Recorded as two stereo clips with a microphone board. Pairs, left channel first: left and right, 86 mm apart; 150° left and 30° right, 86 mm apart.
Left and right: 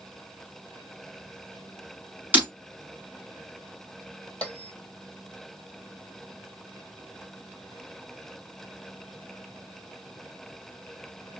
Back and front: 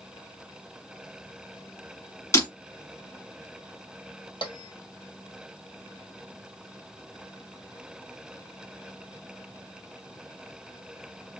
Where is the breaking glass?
160° right, 1.5 m.